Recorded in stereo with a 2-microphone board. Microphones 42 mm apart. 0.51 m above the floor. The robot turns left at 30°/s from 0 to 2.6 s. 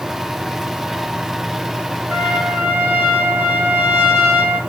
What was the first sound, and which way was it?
A trumpet, 80° right.